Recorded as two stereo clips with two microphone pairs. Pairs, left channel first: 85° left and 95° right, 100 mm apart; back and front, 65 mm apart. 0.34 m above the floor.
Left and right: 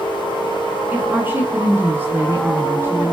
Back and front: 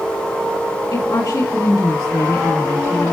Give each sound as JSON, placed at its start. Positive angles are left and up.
{"t": 0.9, "sound": "a woman speaking", "azimuth_deg": -165, "distance_m": 5.0}